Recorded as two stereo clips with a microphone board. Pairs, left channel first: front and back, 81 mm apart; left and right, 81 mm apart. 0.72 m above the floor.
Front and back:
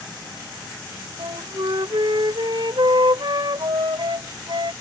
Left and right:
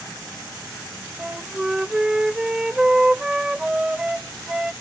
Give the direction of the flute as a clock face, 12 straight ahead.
6 o'clock.